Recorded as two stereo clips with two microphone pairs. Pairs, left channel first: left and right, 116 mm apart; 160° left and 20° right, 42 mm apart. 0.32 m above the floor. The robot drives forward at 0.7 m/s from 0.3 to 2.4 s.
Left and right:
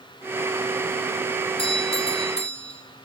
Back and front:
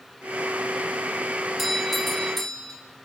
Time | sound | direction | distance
1.6 | a doorbell | 65° left | 3 m